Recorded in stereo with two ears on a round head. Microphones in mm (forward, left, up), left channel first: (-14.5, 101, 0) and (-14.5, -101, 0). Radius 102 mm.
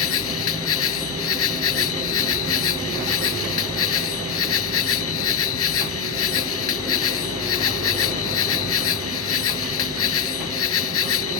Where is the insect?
65° left (ahead or behind).